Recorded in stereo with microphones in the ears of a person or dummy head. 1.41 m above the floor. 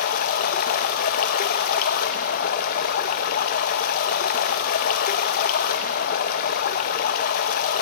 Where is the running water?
45° left (ahead or behind), 0.9 m.